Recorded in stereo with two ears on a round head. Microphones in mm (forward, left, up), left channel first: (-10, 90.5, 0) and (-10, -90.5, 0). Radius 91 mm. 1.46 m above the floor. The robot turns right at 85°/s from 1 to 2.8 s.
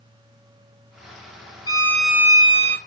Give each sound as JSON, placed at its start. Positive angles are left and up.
{"t": 1.7, "sound": "a violin", "azimuth_deg": 145, "distance_m": 1.0}